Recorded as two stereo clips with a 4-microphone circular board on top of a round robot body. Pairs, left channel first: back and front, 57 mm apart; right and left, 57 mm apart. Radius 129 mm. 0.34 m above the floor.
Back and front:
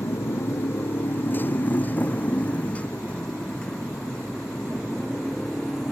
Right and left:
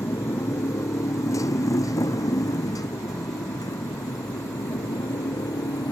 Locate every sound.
0.0 s a motorcycle: 135° right; by 5.9 s 95° right